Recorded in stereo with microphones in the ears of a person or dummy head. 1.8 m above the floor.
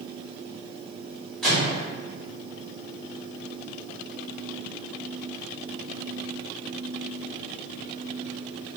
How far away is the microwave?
About 1.0 m.